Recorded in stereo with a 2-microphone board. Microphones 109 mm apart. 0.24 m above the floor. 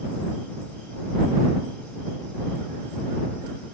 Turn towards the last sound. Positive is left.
No sound to turn to.